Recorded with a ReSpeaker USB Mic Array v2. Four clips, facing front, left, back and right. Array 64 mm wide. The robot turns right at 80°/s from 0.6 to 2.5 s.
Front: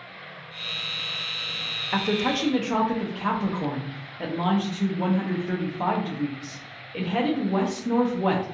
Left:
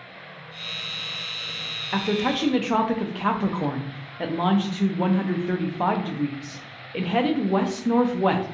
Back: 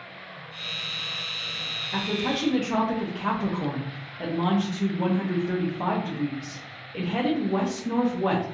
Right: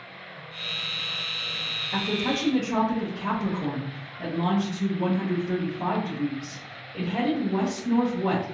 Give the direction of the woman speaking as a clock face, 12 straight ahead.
11 o'clock.